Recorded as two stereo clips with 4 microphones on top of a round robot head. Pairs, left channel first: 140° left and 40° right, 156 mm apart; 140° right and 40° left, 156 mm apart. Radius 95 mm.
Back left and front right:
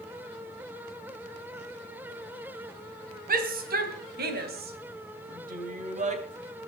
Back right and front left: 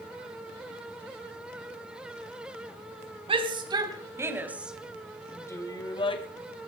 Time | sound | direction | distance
3.3 | a shout | 15° right | 3.5 m